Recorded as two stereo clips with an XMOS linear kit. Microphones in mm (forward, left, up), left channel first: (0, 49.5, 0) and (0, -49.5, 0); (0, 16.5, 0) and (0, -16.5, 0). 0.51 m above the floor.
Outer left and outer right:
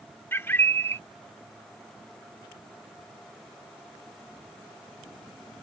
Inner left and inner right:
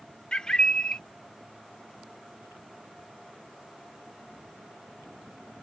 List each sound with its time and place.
0.3 s a bird: 25° left (ahead or behind)